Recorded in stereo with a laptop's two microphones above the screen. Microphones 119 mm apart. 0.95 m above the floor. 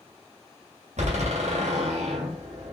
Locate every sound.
1.0 s a door slam: 85° right, 2.5 m